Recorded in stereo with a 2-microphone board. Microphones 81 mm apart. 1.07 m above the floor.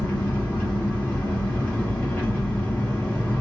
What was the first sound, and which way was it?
An engine running, 20° left (ahead or behind).